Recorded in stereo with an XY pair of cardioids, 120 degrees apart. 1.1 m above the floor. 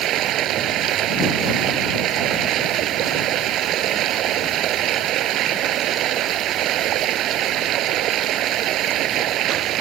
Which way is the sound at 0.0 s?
70° right.